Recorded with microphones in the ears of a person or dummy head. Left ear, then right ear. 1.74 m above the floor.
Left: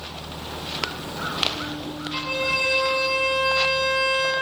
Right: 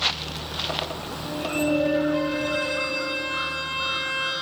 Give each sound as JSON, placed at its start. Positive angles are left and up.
{"t": 2.1, "sound": "a violin", "side_deg": 30, "distance_m": 2.5}